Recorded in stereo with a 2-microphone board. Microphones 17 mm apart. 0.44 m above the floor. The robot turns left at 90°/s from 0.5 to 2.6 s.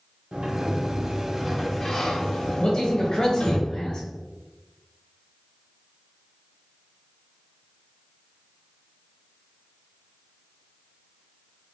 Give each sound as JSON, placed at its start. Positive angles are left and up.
{"t": 0.3, "sound": "a sliding door", "azimuth_deg": -70, "distance_m": 0.9}
{"t": 2.6, "sound": "a man speaking", "side_deg": 40, "distance_m": 1.7}